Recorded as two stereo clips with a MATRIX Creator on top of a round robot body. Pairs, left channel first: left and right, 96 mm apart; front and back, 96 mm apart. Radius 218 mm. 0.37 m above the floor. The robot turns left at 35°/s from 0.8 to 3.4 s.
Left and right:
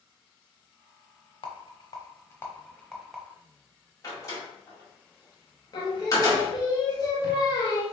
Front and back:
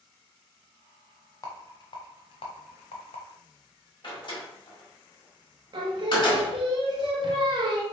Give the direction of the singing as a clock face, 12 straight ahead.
7 o'clock.